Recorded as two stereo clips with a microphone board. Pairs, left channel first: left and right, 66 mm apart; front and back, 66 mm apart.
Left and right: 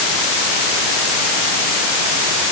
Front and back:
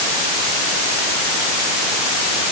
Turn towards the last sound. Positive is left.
No sound to turn to.